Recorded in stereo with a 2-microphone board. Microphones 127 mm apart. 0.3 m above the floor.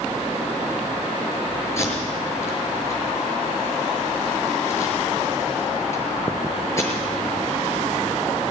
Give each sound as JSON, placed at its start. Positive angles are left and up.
{"t": 1.8, "sound": "tape being pulled", "side_deg": 20, "distance_m": 6.5}